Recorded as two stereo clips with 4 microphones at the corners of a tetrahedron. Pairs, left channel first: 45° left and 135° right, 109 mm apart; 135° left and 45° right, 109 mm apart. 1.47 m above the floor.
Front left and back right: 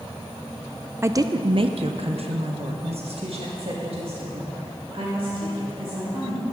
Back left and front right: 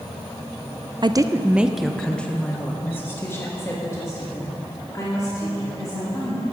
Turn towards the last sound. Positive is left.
turn(degrees=-165)